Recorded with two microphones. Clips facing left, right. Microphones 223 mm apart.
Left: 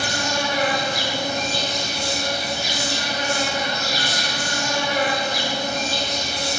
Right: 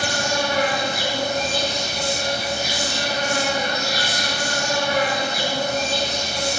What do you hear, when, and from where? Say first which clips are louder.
0.0 s an insect: right 2 dB; 50° right (ahead or behind), 1.2 m